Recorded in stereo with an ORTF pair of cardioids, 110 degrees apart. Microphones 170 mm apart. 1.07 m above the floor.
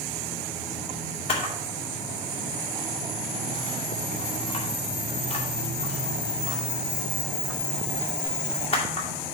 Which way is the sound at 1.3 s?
35° left.